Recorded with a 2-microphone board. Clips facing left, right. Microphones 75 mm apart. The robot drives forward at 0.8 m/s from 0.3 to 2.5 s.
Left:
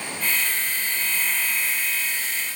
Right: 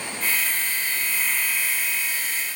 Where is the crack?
No crack in this recording.